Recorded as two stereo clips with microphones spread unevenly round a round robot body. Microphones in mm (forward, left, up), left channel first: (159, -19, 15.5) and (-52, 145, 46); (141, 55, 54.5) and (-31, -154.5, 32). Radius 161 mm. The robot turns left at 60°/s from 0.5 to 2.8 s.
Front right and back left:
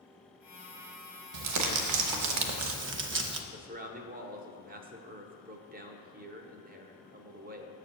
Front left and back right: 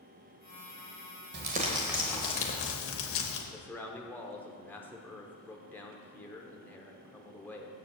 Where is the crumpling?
Straight behind, 0.8 m; by 3.4 s 95° left, 0.8 m.